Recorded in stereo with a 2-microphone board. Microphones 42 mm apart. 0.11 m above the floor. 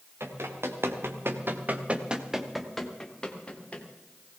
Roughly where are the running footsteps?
Right.